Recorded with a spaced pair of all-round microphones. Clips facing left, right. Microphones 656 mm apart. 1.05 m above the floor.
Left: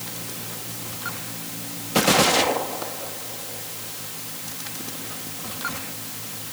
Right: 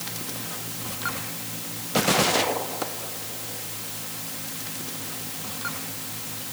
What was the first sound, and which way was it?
Only background noise.